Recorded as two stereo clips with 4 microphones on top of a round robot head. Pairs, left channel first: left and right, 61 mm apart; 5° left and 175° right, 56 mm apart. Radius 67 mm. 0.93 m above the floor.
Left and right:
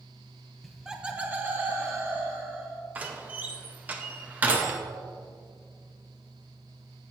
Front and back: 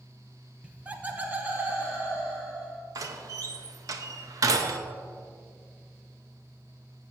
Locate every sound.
0.6 s laughter: 175° left, 0.8 m; by 2.8 s 120° right, 1.6 m
3.0 s a door slam: 155° right, 0.7 m